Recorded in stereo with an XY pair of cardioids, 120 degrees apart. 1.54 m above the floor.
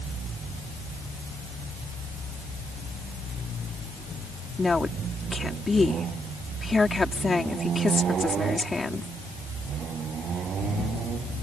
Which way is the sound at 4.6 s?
20° left.